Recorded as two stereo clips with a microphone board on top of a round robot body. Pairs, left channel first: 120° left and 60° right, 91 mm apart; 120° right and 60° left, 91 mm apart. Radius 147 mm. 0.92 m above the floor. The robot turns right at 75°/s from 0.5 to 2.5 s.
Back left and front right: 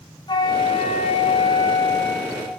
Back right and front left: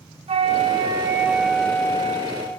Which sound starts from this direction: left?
A flute, at 0.3 s.